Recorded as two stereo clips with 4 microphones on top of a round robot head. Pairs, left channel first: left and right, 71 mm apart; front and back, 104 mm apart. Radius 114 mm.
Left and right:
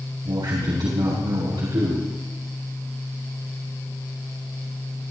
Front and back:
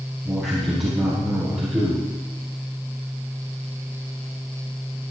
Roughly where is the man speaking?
Right.